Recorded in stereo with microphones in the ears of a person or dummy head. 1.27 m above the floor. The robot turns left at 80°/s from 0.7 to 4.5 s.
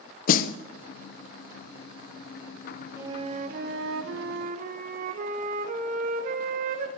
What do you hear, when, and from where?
0.3 s a snare drum: 55° left (ahead or behind), 0.6 m
3.0 s a flute: 10° right, 0.8 m; by 6.9 s 130° right, 0.8 m